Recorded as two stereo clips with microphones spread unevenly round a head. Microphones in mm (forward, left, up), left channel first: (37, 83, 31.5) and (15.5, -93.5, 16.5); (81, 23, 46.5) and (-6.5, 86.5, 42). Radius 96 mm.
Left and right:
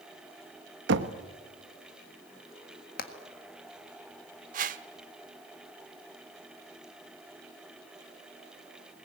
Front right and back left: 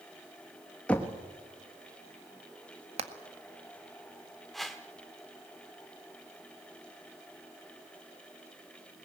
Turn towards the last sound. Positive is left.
turn(degrees=-120)